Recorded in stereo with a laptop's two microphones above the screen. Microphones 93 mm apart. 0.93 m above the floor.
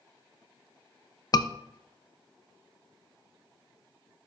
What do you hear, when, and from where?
1.3 s a scream: 40° left (ahead or behind), 0.6 m